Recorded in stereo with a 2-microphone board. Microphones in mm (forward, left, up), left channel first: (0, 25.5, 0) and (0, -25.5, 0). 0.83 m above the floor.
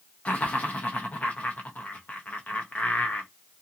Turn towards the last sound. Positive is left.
turn(degrees=25)  # may be behind; listen again after turning